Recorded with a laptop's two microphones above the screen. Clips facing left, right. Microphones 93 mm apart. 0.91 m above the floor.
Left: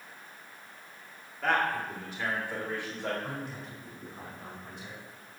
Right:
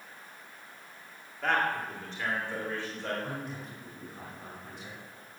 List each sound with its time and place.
1.4 s a man speaking: 5° left (ahead or behind), 2.5 m; by 3.1 s 20° left (ahead or behind), 4 m
3.2 s a man speaking: 5° left (ahead or behind), 4.5 m